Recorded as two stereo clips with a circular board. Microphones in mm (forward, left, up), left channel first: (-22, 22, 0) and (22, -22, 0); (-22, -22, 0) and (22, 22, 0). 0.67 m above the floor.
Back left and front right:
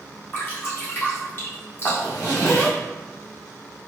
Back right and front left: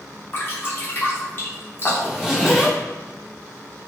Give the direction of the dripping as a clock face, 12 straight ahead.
6 o'clock.